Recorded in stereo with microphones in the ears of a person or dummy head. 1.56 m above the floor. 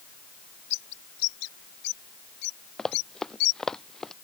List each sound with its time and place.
0.7 s a bird: 65° left (ahead or behind)
2.8 s running footsteps: 5° left (ahead or behind); by 4.1 s 10° left (ahead or behind)